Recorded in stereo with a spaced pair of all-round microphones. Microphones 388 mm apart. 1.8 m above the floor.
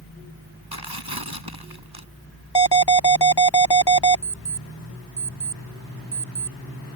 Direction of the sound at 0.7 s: 70° right (ahead or behind).